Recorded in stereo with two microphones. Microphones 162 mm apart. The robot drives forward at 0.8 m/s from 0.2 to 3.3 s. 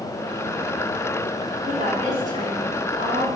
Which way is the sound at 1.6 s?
50° right (ahead or behind).